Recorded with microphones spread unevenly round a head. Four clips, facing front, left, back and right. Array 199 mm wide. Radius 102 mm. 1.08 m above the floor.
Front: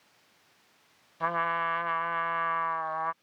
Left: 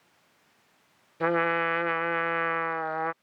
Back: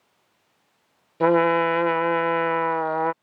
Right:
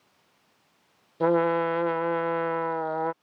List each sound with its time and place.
1.2 s a trumpet: 160° right